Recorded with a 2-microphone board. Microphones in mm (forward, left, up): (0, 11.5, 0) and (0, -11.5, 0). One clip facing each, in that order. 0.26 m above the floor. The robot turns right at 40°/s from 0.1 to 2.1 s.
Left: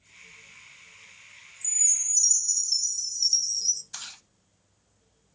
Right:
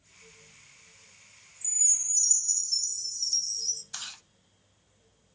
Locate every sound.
1.6 s a chime: 20° left (ahead or behind), 0.7 m; by 3.8 s 40° left (ahead or behind), 0.7 m
3.9 s chewing: centre (ahead or behind), 0.7 m